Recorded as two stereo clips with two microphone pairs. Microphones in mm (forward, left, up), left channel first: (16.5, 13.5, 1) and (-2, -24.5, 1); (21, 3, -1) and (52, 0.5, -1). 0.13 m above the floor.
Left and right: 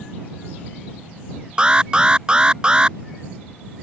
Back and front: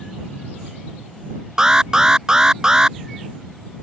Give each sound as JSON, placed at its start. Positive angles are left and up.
{"t": 1.6, "sound": "an alarm", "azimuth_deg": -60}